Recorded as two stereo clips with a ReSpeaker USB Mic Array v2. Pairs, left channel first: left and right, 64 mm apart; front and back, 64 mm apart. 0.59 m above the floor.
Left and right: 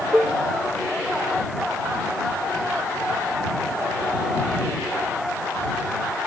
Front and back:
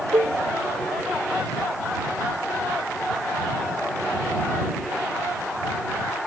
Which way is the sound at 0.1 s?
165° right.